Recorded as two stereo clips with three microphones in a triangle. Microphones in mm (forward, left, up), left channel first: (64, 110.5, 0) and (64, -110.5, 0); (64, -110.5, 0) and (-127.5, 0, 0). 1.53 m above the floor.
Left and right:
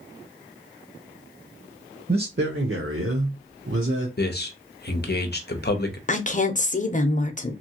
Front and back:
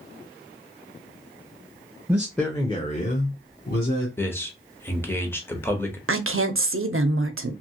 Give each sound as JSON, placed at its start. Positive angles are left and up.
{"t": 2.1, "sound": "a man speaking", "azimuth_deg": -130, "distance_m": 0.7}
{"t": 4.2, "sound": "a man speaking", "azimuth_deg": 50, "distance_m": 0.7}
{"t": 6.1, "sound": "a woman speaking", "azimuth_deg": 140, "distance_m": 0.5}